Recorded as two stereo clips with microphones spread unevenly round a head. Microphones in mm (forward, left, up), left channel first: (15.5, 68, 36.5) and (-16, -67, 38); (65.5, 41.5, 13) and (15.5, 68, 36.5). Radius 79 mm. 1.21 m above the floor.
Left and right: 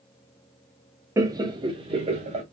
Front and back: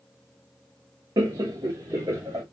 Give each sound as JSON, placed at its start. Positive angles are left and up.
{"t": 1.2, "sound": "laughter", "azimuth_deg": -170, "distance_m": 0.8}